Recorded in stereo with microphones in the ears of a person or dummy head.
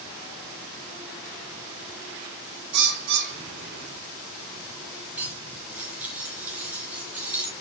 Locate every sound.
2.7 s a bird: 60° right (ahead or behind), 1.9 m
5.2 s cutlery clinking: 10° right (ahead or behind), 1.3 m